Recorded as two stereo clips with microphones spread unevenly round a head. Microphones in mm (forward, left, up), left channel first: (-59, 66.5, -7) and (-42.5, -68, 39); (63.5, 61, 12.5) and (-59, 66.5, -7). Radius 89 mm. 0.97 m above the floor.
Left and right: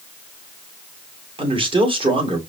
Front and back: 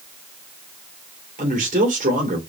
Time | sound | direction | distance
1.4 | a man speaking | 135° right | 2 m